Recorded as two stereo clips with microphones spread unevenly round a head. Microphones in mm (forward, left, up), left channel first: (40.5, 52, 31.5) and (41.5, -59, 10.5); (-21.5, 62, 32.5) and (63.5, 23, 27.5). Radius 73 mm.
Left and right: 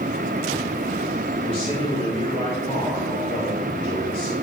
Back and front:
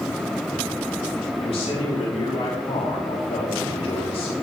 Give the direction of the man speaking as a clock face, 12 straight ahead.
7 o'clock.